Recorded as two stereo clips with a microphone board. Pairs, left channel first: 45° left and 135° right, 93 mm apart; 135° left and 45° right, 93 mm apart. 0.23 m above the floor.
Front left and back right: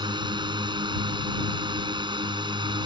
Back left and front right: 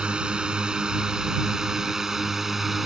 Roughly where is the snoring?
No snoring in this recording.